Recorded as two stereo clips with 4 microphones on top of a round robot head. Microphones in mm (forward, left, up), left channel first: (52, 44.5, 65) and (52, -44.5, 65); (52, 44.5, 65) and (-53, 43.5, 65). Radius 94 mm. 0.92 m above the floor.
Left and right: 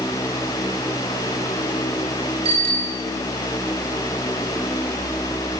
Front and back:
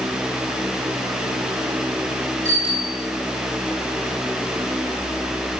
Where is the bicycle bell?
110° right, 9.5 m.